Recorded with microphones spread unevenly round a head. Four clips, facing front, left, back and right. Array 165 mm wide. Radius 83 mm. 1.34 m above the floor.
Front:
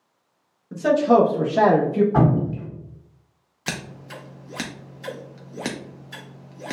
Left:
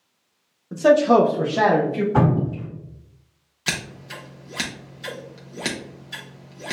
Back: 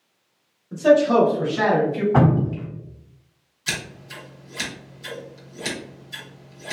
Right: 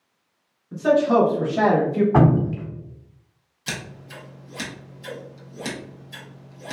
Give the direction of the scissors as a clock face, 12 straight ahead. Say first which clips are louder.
Left 3 dB, even; 11 o'clock.